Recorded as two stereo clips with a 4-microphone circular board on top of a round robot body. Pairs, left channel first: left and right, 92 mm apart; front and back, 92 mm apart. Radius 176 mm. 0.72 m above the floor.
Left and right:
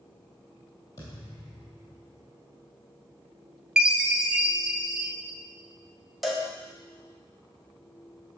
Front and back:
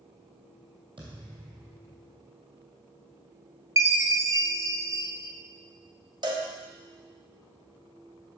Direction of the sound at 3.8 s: 165° right.